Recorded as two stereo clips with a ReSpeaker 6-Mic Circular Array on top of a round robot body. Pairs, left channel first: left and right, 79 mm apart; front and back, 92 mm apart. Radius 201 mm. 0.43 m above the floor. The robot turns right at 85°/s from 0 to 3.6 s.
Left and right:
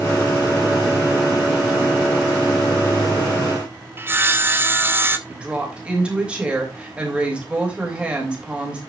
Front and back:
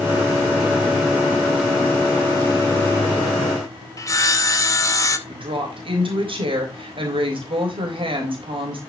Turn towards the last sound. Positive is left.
turn(degrees=-165)